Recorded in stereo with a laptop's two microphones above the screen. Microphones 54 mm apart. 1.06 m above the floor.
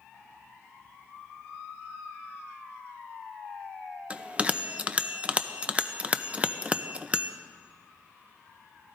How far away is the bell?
About 0.7 m.